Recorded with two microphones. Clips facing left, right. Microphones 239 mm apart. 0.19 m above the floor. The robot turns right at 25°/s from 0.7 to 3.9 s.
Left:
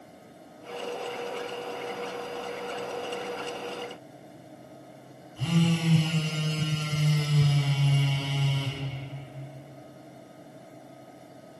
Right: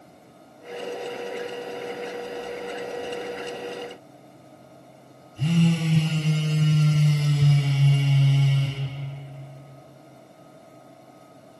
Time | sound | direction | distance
5.4 | a phone buzzing | 25° right (ahead or behind) | 1.2 m